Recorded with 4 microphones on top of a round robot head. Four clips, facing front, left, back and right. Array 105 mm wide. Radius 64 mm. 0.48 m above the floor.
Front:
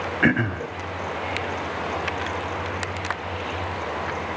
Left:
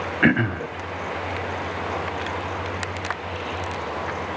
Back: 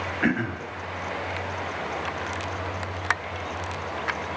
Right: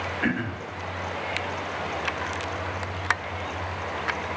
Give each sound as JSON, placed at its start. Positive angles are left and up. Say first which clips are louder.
{"t": 0.2, "sound": "throat clearing", "louder": "left 10 dB, front 4 dB", "azimuth_deg": 55, "distance_m": 0.7}